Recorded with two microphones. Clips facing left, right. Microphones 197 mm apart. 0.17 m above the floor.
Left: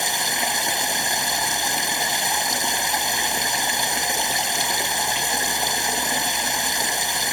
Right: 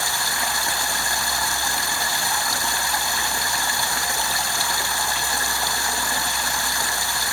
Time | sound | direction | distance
0.0 | running water | 20° left (ahead or behind) | ?